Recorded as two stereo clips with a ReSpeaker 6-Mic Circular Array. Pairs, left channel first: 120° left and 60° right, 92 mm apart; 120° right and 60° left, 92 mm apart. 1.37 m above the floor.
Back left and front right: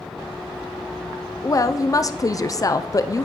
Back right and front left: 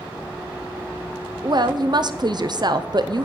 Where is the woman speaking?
80° left, 0.5 m.